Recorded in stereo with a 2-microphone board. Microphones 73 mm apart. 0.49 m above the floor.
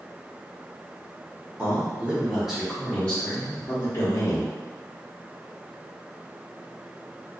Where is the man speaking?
35° right (ahead or behind), 1.1 m; by 4.5 s 50° left (ahead or behind), 1.5 m.